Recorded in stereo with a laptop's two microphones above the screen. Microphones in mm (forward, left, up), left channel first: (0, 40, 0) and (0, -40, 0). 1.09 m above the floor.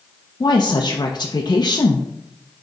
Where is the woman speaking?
55° left (ahead or behind), 0.9 m.